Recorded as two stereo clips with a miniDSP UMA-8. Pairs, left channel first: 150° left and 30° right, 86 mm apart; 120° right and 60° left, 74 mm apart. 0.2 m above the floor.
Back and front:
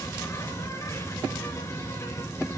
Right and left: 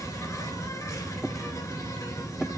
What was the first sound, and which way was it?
An insect, 160° right.